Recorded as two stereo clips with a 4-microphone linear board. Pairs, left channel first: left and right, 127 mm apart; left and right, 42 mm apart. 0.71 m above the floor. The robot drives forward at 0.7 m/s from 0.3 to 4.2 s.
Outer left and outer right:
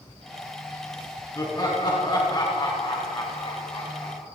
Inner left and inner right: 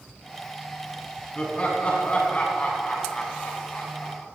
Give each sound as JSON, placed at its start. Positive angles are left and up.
{"t": 1.4, "sound": "laughter", "side_deg": 30, "distance_m": 7.0}